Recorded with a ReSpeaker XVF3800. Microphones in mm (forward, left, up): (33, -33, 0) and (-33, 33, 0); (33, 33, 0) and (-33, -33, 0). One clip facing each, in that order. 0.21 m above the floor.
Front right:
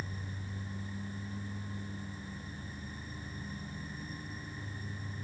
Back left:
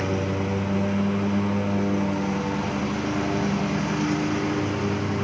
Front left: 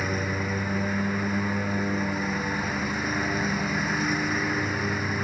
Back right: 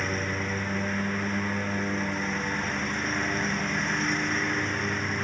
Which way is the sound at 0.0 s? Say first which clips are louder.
Back left 20 dB, front left 2 dB; 130° left.